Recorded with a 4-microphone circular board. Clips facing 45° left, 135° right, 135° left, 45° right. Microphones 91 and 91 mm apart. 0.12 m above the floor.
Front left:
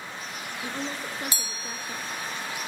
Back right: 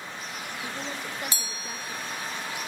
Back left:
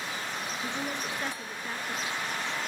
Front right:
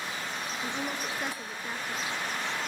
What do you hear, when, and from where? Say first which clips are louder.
0.6 s a woman speaking: front left 3 dB, front right 1 dB; 30° left, 1.4 m